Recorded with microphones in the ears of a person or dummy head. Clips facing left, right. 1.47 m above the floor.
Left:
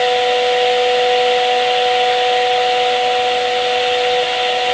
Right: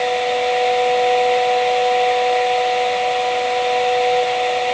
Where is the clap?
No clap in this recording.